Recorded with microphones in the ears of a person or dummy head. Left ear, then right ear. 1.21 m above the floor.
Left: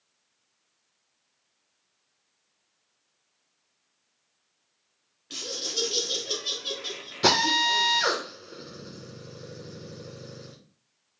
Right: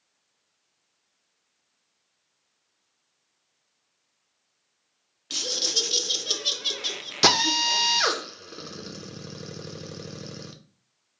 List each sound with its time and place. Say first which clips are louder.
5.3 s laughter: right 6 dB; 20° right (ahead or behind), 0.7 m
7.2 s a drill: right 1 dB; 45° right (ahead or behind), 0.8 m